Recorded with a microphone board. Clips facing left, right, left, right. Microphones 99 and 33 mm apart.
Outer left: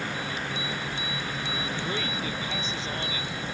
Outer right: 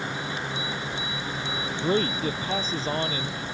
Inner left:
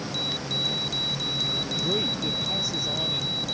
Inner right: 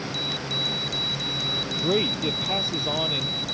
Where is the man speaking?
35° right (ahead or behind).